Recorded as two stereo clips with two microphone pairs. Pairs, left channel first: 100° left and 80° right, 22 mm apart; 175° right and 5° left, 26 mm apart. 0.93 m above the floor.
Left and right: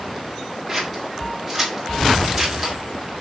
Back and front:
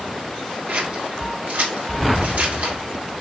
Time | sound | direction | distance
0.7 | scissors | 5° left | 2 m